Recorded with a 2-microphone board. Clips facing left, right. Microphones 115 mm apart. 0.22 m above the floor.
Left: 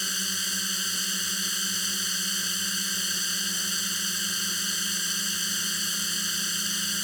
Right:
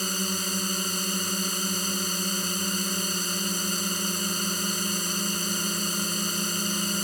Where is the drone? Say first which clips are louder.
Right 7 dB; 50° right (ahead or behind).